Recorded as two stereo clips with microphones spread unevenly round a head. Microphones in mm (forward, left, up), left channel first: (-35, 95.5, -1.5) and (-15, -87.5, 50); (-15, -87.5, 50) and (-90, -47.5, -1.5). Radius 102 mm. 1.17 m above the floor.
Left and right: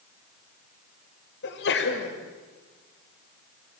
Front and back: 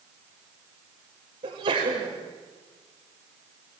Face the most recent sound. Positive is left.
turn(degrees=120)